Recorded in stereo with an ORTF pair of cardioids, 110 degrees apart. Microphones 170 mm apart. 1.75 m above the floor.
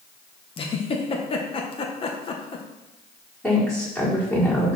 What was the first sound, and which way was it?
A giggle, 35° left.